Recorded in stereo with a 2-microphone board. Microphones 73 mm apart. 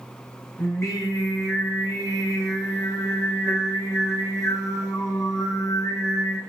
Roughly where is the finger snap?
I don't hear a finger snap.